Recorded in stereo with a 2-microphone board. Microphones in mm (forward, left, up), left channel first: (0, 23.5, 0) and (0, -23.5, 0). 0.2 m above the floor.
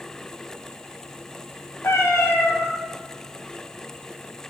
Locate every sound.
1.8 s a cat meowing: 80° left, 3 m